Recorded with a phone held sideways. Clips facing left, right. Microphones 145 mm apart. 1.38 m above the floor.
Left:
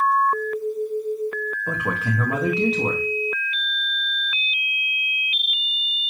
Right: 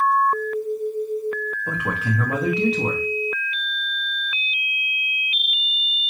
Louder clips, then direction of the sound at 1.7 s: Even; 5° left (ahead or behind).